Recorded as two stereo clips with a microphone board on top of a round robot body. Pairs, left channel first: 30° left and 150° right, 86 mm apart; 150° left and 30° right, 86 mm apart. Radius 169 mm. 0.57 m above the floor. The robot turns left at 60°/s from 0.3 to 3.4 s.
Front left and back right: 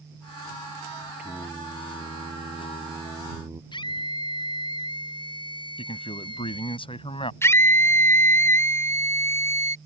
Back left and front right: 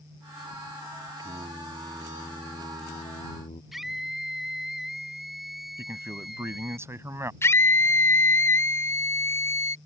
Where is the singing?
75° right; by 3.6 s 155° left.